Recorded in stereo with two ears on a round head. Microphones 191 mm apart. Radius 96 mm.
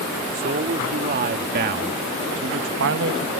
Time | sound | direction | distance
0.3 | a man speaking | 40° right (ahead or behind) | ?